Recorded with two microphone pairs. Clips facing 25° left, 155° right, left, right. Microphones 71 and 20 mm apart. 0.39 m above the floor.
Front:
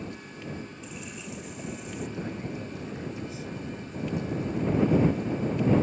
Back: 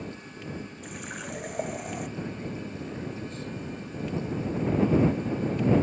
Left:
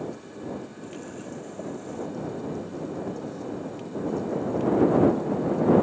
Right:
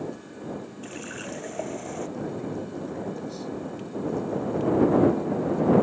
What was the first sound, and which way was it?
A running tap, 125° right.